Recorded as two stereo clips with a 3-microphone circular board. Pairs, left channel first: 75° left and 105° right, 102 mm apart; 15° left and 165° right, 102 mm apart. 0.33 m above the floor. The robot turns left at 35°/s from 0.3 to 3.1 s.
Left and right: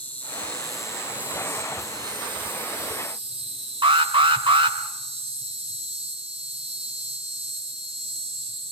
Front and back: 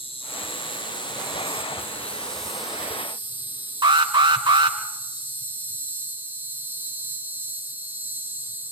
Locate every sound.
0.0 s an insect: straight ahead, 5 m; by 8.7 s 95° right, 5 m
3.8 s an alarm: 135° right, 3.5 m